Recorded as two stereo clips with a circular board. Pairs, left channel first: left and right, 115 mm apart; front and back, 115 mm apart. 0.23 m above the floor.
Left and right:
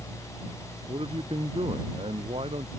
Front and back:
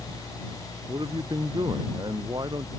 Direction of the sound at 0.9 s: 130° right.